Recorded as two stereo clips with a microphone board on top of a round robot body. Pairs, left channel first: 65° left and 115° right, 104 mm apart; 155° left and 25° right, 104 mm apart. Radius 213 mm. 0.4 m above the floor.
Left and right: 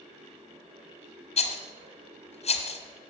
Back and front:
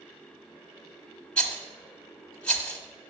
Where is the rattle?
80° left, 1.2 m.